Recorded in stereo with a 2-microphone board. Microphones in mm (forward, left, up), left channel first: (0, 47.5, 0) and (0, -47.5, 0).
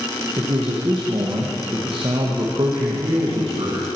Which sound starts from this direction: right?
A man speaking, at 0.4 s.